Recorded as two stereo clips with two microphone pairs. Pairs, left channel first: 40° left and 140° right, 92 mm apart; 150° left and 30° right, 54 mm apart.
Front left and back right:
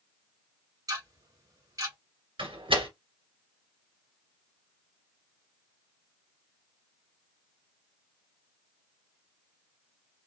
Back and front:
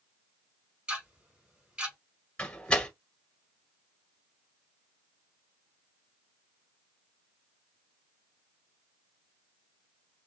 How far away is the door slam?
About 1.8 m.